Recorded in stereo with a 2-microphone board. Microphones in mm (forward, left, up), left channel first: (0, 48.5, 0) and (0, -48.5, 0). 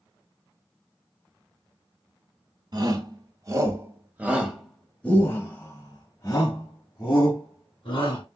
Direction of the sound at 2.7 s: 45° right (ahead or behind).